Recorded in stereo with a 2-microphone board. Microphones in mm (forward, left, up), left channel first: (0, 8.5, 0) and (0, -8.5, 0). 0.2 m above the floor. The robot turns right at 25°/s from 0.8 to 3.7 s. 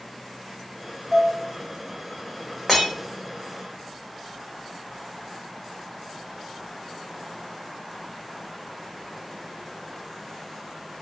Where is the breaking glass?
5° right (ahead or behind), 1.7 m; by 2.9 s 10° right (ahead or behind), 1.7 m.